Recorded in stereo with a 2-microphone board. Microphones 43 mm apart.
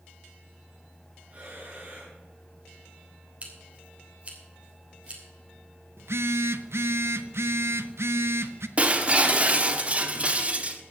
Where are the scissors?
30° right (ahead or behind), 3 m.